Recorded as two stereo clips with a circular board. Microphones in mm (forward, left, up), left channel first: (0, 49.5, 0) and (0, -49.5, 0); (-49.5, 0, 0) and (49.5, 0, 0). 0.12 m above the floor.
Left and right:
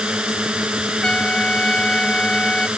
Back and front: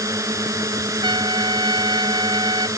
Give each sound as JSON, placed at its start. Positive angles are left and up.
{"t": 0.0, "sound": "a drone", "azimuth_deg": -15}
{"t": 1.0, "sound": "a trumpet", "azimuth_deg": 10}